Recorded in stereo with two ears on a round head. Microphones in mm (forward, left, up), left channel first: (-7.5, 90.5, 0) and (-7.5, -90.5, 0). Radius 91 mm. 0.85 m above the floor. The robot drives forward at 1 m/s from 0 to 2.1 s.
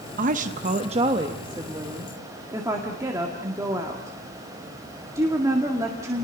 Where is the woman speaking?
40° right (ahead or behind), 0.9 m; by 6.2 s 15° right (ahead or behind), 2.0 m.